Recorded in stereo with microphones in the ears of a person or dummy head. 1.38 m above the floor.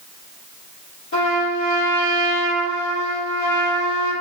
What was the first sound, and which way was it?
A trumpet, 75° left (ahead or behind).